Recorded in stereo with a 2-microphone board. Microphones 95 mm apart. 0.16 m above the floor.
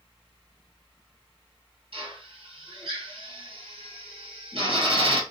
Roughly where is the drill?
Right.